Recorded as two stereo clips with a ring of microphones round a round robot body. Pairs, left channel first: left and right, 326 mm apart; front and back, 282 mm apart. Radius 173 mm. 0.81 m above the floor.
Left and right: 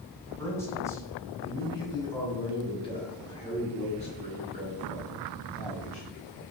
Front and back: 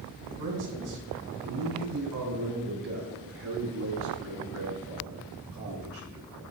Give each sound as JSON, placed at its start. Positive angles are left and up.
{"t": 0.4, "sound": "a man speaking", "azimuth_deg": 175, "distance_m": 6.0}